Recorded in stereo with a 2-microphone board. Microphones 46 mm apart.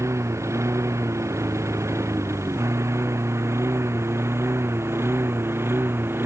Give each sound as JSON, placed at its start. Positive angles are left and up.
{"t": 0.0, "sound": "a lawn mower", "side_deg": -85}